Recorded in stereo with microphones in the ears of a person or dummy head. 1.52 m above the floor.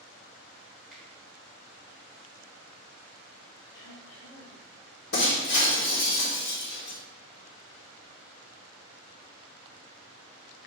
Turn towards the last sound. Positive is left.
turn(degrees=55)  # may be behind; listen again after turning